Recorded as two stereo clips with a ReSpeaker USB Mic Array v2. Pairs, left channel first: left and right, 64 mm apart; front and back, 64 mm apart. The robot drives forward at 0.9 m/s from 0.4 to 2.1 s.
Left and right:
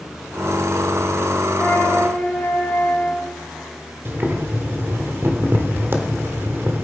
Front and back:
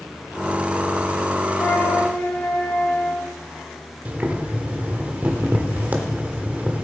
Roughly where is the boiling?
Behind right.